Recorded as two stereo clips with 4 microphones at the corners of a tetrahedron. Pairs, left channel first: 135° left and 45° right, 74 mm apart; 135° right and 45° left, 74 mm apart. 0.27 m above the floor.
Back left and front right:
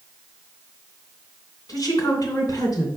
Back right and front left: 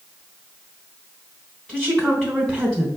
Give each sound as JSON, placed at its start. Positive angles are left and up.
{"t": 1.7, "sound": "a woman speaking", "azimuth_deg": 145, "distance_m": 3.0}